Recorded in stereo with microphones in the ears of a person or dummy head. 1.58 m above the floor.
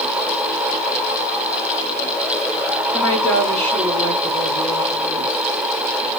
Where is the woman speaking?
10° left (ahead or behind), 2.5 m.